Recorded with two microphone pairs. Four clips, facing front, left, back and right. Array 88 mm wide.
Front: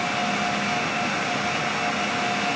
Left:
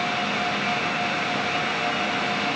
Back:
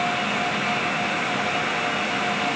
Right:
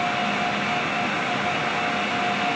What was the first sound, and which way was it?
Only background noise.